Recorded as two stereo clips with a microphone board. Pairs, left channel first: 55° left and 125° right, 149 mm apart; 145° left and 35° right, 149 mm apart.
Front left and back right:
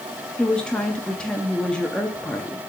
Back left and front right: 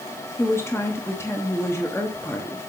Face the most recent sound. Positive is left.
turn(degrees=125)